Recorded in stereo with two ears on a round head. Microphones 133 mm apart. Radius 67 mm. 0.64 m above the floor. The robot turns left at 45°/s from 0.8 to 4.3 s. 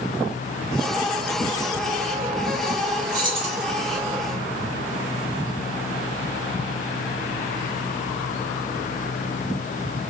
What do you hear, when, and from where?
3.1 s keys jangling: 25° right (ahead or behind), 1.3 m; by 3.6 s 45° right (ahead or behind), 1.3 m